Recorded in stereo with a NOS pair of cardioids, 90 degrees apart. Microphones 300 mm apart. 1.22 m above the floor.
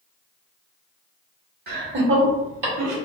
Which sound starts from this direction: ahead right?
Laughter, at 1.7 s.